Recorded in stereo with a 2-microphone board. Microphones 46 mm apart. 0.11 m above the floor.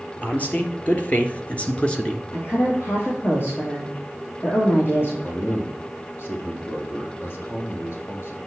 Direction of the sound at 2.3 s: 60° left (ahead or behind).